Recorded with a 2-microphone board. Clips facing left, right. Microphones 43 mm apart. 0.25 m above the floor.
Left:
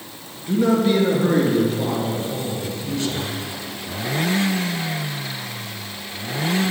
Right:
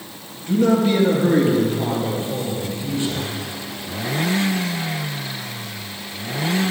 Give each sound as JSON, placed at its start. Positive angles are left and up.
{"t": 0.5, "sound": "a man speaking", "side_deg": 10, "distance_m": 4.0}